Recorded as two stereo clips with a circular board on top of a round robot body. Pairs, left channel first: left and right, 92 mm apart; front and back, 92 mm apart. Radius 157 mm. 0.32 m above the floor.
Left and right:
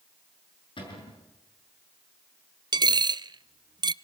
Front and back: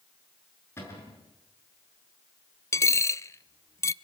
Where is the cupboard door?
60° left, 7 m.